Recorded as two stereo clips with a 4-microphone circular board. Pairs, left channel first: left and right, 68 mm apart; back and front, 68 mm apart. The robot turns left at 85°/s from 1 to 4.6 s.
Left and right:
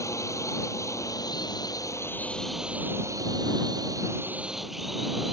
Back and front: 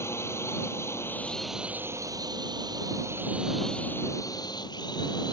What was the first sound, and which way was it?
A drone, 130° left.